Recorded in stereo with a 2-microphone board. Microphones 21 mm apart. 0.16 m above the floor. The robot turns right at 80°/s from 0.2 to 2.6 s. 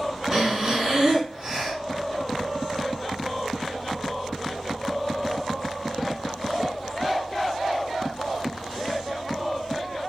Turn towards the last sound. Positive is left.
turn(degrees=45)